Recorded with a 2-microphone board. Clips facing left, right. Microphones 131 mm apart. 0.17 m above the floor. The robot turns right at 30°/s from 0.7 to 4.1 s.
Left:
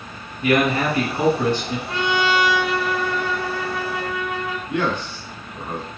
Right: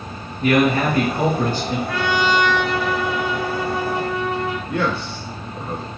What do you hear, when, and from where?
0.4 s a man speaking: 75° right, 2.5 m; by 1.8 s 45° right, 2.5 m
1.9 s a trumpet: 150° left, 0.7 m; by 4.6 s 145° right, 0.7 m
4.7 s a man speaking: 15° left (ahead or behind), 1.2 m